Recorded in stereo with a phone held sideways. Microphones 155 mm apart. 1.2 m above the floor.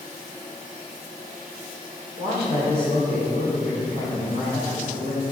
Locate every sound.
2.2 s a man speaking: 55° right (ahead or behind), 3 m; by 5.2 s 75° right (ahead or behind), 4 m